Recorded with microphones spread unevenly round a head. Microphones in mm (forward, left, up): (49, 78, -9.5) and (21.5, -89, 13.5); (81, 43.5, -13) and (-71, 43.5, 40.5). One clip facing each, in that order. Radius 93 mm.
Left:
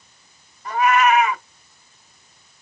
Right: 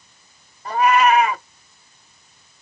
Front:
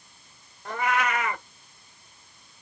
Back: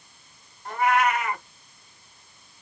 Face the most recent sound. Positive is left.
turn(degrees=-45)